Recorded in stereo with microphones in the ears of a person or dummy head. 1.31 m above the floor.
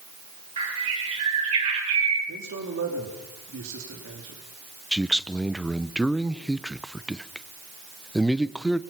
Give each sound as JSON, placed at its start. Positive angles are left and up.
{"t": 0.6, "sound": "a bird", "side_deg": -40, "distance_m": 6.0}
{"t": 2.3, "sound": "a man speaking", "side_deg": -65, "distance_m": 3.5}
{"t": 4.9, "sound": "a man speaking", "side_deg": 5, "distance_m": 0.6}